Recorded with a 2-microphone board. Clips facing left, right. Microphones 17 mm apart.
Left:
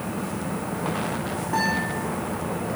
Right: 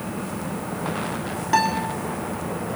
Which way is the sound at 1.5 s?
80° right.